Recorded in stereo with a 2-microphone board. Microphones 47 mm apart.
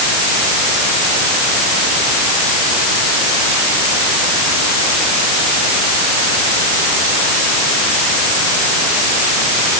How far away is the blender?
No blender in this recording.